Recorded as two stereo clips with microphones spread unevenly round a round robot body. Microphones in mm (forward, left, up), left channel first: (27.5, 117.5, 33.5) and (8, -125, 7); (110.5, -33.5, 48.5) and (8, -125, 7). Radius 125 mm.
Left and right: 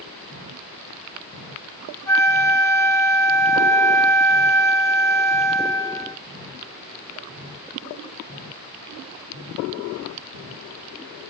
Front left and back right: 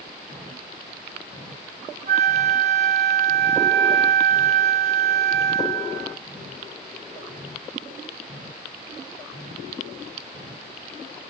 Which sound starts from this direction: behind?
A flute, at 2.1 s.